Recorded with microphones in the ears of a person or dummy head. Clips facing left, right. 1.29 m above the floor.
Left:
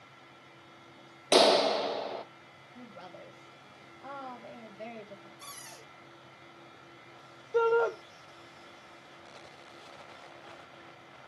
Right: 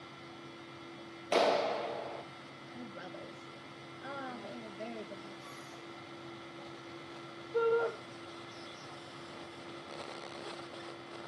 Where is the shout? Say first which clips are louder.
Left 4 dB; 60° left (ahead or behind), 0.9 m.